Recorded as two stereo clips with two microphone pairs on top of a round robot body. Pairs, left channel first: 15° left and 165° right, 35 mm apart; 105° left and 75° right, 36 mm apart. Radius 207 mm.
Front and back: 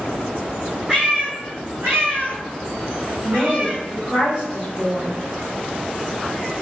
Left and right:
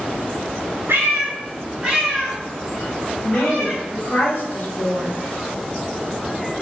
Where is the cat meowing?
90° right, 0.6 m; by 3.8 s 160° left, 1.4 m.